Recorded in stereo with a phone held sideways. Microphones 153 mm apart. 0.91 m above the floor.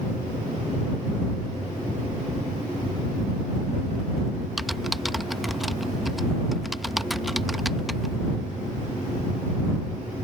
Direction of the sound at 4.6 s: Centre (ahead or behind).